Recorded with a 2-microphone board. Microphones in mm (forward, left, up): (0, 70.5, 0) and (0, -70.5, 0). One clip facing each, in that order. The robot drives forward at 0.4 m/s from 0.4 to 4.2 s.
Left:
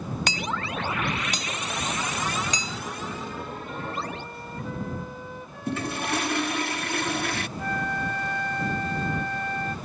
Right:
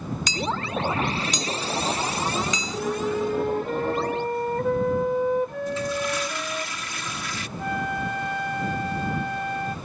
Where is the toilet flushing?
65° left (ahead or behind).